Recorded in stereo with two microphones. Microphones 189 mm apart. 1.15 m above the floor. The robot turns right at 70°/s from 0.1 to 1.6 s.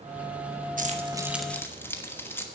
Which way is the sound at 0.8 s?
45° right (ahead or behind).